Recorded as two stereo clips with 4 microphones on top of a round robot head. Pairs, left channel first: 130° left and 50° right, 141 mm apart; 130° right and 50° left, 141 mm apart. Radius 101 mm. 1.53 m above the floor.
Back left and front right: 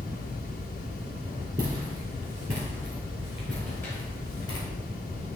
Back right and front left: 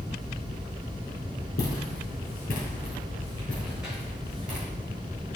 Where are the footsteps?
115° right, 2.5 m; by 4.7 s 80° left, 1.8 m.